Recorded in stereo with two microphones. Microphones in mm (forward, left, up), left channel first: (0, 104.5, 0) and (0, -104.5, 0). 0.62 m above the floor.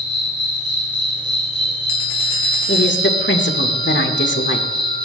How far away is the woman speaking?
About 1.5 m.